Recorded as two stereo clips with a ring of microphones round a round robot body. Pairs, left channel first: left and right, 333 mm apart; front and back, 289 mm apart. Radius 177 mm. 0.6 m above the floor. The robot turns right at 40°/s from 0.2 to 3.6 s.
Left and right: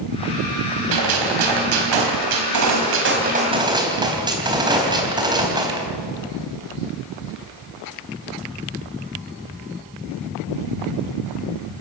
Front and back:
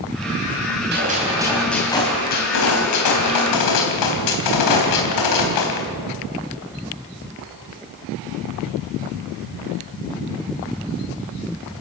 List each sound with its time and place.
0.9 s a gunshot: 120° right, 3.5 m; by 5.9 s 10° right, 3.5 m